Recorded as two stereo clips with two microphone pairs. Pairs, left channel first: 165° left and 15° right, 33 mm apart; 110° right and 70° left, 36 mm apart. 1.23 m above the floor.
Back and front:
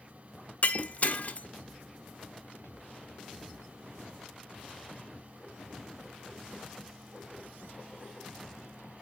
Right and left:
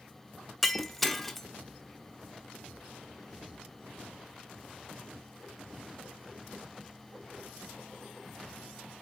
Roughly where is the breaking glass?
Behind.